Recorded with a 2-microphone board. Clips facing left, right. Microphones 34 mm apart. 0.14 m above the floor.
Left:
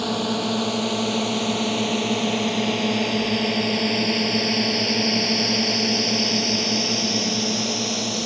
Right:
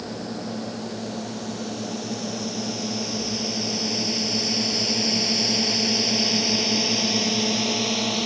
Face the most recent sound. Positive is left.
turn(degrees=-15)  # may be behind; listen again after turning